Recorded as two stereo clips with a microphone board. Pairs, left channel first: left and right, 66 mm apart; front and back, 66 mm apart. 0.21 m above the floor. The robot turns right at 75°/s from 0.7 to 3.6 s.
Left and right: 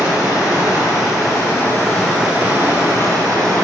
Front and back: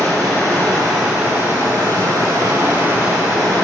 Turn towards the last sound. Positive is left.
turn(degrees=-75)